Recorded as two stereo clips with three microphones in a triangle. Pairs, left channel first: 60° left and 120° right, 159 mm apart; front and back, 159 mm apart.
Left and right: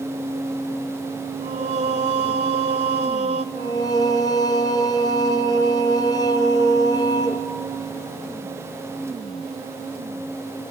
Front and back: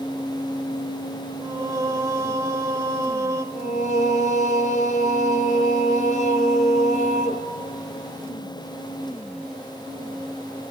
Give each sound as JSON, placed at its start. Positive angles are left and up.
{"t": 1.4, "sound": "singing", "azimuth_deg": -120, "distance_m": 0.5}
{"t": 3.5, "sound": "singing", "azimuth_deg": 0, "distance_m": 0.7}